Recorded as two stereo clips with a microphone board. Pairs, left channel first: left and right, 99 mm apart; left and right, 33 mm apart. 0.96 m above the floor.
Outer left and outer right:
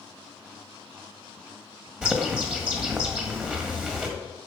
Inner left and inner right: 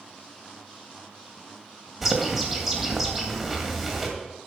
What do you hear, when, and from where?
2.0 s a bird: 10° right (ahead or behind), 1.7 m